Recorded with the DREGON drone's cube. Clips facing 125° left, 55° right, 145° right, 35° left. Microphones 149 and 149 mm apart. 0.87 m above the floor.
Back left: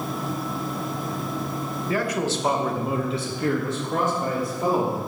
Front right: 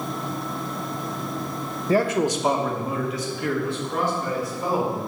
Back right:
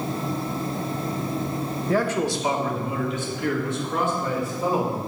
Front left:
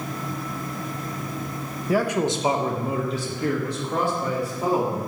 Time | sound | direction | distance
1.9 | a man speaking | 40° right | 1.0 m